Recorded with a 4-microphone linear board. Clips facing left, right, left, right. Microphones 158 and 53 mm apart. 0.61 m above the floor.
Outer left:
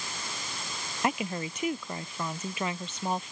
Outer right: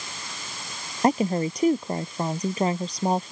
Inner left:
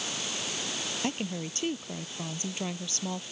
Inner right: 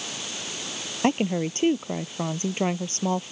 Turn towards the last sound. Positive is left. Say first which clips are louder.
# outer right 9 dB, inner right 12 dB
turn(degrees=-35)  # may be behind; listen again after turning